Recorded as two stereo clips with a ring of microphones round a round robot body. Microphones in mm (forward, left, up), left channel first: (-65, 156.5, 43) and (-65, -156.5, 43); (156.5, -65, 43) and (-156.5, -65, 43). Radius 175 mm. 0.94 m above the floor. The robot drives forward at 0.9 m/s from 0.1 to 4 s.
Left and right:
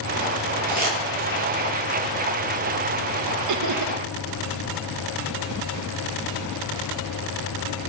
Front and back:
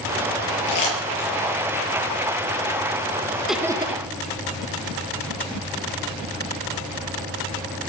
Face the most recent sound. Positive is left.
turn(degrees=-115)